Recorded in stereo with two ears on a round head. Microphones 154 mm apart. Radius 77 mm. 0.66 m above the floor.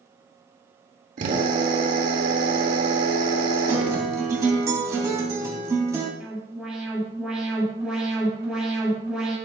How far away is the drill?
About 2 m.